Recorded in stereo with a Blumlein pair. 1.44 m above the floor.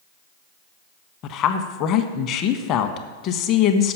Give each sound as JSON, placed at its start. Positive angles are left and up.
{"t": 1.2, "sound": "a woman speaking", "azimuth_deg": 35, "distance_m": 0.9}